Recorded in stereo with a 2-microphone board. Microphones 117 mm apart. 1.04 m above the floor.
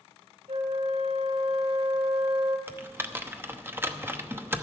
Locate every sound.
0.5 s a flute: 75° right (ahead or behind), 2.5 m
2.7 s typing on a keyboard: 20° right (ahead or behind), 0.9 m